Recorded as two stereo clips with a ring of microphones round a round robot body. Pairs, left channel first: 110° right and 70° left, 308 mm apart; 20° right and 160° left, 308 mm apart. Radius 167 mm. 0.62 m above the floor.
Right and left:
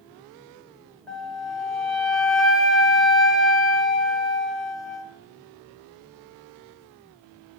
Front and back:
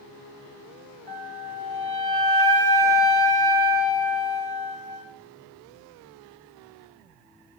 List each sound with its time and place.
1.1 s a flute: 160° left, 2.5 m